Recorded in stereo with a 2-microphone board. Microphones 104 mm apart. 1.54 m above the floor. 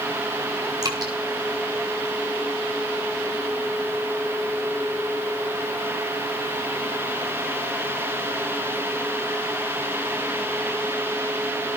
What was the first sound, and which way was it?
Dripping, 40° right (ahead or behind).